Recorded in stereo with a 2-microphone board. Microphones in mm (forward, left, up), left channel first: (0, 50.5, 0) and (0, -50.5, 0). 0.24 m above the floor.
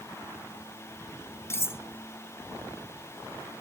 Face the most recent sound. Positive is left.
turn(degrees=25)  # may be behind; listen again after turning